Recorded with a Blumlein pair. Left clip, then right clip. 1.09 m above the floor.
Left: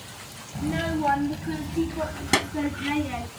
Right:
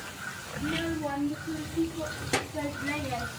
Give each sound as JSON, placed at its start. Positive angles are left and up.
{"t": 0.6, "sound": "a child speaking", "azimuth_deg": 20, "distance_m": 0.6}